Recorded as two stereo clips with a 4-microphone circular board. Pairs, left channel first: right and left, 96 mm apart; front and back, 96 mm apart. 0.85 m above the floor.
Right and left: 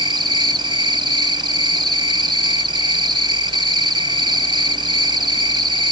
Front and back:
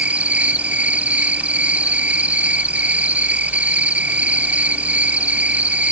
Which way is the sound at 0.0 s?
105° left.